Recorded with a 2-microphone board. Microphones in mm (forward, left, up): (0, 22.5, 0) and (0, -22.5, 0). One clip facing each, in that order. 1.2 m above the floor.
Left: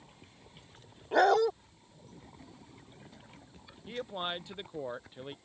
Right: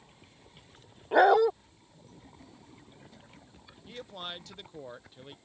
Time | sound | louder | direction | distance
1.1 | a dog barking | right 4 dB | 15° right (ahead or behind) | ?
3.9 | a man speaking | left 5 dB | 20° left (ahead or behind) | ?